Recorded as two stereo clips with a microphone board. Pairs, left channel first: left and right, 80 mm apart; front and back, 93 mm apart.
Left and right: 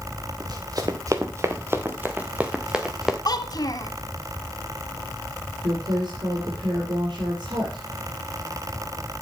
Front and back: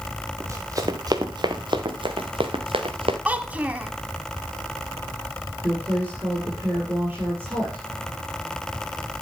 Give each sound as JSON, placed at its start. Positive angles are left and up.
{"t": 0.4, "sound": "running footsteps", "azimuth_deg": -120, "distance_m": 1.7}
{"t": 3.2, "sound": "a child speaking", "azimuth_deg": 110, "distance_m": 1.1}
{"t": 5.6, "sound": "a woman speaking", "azimuth_deg": -105, "distance_m": 5.5}